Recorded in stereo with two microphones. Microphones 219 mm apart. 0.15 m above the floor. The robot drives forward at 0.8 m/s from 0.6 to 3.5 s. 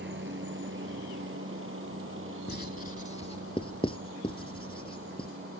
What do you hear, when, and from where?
0.0 s a helicopter: 55° right (ahead or behind); by 5.6 s 65° right (ahead or behind)
2.5 s writing: 50° left (ahead or behind); by 5.3 s 25° left (ahead or behind)